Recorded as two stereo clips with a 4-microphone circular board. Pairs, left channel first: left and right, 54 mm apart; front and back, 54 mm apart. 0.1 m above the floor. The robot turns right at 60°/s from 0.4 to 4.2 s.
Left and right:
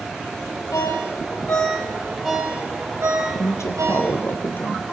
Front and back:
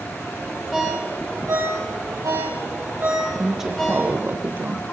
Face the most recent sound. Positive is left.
turn(degrees=135)